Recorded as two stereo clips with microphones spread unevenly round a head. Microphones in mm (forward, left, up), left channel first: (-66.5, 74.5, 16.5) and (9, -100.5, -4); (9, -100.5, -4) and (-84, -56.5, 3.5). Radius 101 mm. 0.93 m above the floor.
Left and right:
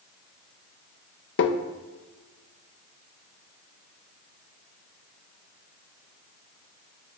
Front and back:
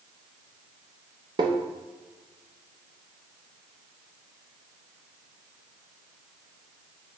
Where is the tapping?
100° left, 0.5 m.